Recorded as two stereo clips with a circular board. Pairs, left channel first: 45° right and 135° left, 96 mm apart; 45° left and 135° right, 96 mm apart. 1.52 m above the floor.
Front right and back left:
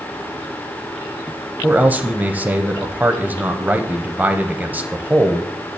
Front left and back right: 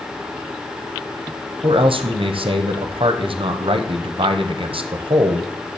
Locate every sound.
1.6 s a man speaking: 155° right, 0.6 m